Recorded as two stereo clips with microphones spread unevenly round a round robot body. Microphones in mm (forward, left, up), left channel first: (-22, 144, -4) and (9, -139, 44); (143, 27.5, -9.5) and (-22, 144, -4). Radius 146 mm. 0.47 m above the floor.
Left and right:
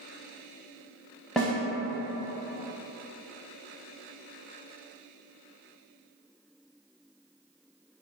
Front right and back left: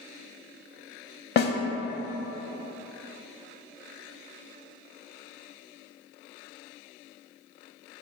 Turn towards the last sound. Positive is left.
turn(degrees=0)